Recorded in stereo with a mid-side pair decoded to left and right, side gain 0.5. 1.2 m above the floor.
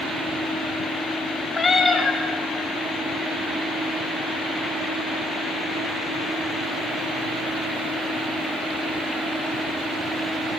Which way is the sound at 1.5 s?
30° left.